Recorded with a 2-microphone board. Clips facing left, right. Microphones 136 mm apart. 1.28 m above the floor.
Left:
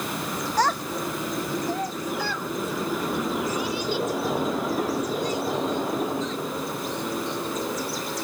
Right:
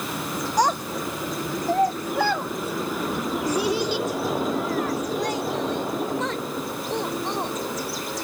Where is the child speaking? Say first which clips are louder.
Right 2 dB; 15° right (ahead or behind); by 7.5 s 80° right.